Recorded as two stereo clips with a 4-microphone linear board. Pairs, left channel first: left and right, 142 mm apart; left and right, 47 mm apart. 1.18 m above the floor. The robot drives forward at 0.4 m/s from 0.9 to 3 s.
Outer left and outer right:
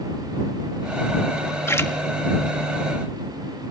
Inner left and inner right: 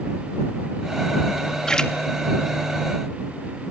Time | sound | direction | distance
1.7 | a splash | 20° left (ahead or behind) | 1.6 m